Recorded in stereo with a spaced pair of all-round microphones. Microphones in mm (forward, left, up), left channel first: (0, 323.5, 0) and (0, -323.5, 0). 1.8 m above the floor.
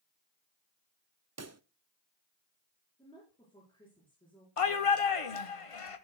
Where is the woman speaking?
5° left (ahead or behind), 5.5 m.